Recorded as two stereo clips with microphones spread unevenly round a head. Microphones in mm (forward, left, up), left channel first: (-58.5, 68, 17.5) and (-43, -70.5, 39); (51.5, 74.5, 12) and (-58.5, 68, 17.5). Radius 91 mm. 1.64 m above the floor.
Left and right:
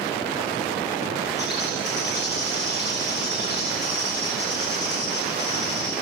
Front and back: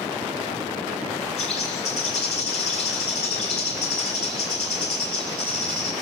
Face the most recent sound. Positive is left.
turn(degrees=25)